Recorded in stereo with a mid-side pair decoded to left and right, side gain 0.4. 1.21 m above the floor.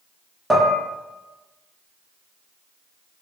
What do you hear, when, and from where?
0.5 s dishes clattering: 20° right, 0.8 m